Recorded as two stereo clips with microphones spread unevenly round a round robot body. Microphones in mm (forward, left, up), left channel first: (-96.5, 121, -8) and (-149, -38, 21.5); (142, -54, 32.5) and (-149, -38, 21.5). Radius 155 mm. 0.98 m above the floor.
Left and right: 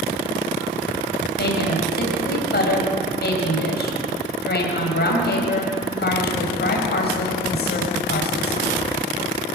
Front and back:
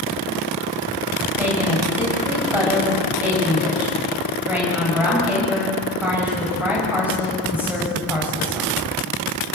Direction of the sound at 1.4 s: 90° left.